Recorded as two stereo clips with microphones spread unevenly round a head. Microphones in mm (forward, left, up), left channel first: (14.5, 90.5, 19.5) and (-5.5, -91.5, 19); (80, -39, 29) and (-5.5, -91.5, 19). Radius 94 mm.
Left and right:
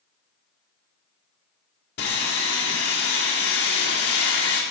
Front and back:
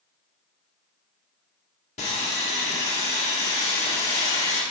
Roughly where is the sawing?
Ahead left.